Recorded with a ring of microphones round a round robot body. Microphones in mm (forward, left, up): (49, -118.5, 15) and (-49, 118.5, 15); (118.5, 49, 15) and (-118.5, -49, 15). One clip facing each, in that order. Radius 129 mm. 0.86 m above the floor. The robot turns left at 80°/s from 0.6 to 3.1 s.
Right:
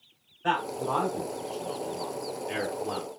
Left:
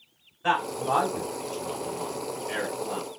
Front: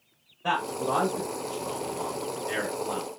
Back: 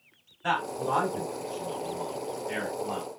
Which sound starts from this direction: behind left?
A man speaking, at 0.4 s.